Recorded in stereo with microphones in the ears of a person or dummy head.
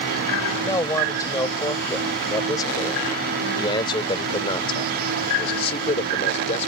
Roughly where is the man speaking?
Centre.